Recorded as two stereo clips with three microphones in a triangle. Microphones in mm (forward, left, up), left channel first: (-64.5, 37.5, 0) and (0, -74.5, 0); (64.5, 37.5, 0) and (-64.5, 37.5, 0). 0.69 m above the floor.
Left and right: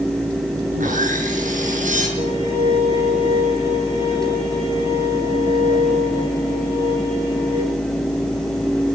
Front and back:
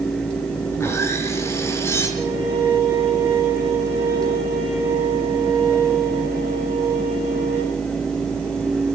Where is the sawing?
70° right, 6 m.